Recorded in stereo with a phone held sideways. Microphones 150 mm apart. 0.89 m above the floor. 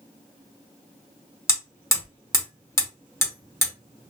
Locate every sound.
1.5 s hammering: 20° left (ahead or behind), 1.1 m